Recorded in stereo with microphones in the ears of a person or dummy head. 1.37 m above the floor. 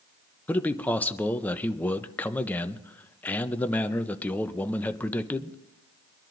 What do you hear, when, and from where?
0.5 s a man speaking: 10° left (ahead or behind), 0.6 m